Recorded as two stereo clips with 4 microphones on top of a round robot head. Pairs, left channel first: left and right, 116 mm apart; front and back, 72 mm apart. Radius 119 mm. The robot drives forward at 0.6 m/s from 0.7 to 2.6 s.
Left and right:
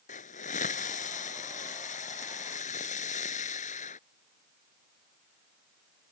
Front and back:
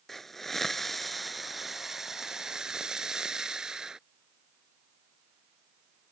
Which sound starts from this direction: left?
A hiss, at 0.1 s.